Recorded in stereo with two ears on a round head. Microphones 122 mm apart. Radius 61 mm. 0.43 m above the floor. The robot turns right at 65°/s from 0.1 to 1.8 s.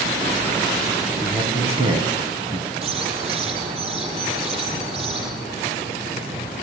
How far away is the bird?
About 6 m.